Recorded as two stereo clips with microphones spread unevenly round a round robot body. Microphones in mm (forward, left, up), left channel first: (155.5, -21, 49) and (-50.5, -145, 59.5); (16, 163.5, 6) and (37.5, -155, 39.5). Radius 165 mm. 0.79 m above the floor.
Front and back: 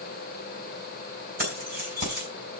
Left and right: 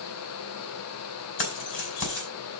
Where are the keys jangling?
150° left, 4.5 m.